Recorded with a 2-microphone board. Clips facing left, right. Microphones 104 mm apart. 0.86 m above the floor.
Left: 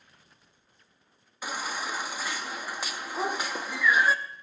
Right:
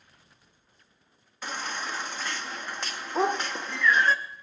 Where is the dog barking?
75° right (ahead or behind), 1.1 m.